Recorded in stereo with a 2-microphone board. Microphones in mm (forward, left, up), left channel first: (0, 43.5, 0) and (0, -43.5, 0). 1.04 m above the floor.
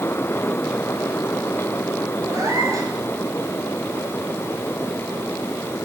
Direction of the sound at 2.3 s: 40° right (ahead or behind).